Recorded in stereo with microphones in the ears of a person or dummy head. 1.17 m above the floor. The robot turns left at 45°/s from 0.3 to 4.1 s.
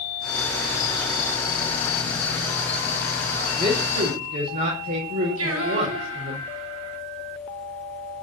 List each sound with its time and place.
3.6 s a man speaking: 30° right (ahead or behind), 5 m; by 6.4 s 50° right (ahead or behind), 5 m
5.4 s singing: 80° right, 4 m